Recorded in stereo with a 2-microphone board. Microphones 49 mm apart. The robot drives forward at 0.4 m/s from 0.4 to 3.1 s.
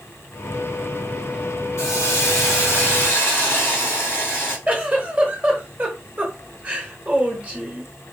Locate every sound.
1.8 s a hiss: 70° left (ahead or behind), 1.0 m; by 4.6 s 55° left (ahead or behind), 1.2 m
4.7 s a giggle: 30° right (ahead or behind), 0.8 m